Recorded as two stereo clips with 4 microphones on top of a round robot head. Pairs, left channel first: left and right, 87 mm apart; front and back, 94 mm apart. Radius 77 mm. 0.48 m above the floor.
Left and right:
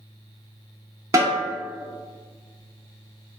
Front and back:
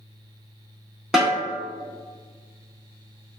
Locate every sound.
1.1 s a snare drum: 95° right, 1.3 m